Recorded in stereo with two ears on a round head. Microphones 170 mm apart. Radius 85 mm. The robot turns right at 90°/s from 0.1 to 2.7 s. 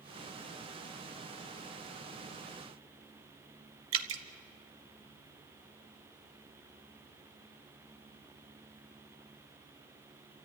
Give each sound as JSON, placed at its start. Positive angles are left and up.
{"t": 3.9, "sound": "dripping", "side_deg": -80, "distance_m": 1.3}